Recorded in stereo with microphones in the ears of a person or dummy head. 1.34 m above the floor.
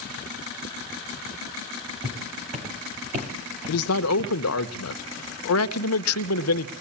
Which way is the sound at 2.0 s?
30° right (ahead or behind).